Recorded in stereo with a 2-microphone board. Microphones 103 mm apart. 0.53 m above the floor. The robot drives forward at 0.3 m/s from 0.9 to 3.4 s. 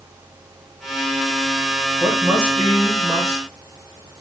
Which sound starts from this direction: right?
A woman speaking, at 2.0 s.